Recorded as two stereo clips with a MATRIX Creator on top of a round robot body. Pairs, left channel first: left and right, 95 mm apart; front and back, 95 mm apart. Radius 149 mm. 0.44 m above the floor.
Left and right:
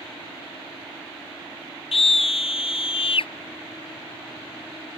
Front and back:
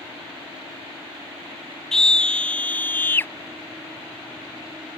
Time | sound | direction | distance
1.9 | a scream | 85° left | ?